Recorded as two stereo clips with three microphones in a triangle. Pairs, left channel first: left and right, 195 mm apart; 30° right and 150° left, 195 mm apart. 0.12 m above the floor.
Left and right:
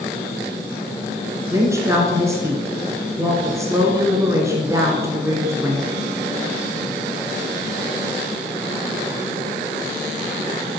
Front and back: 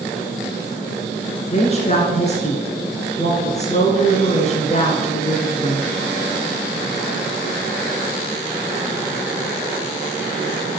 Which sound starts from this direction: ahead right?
A woman speaking, at 1.5 s.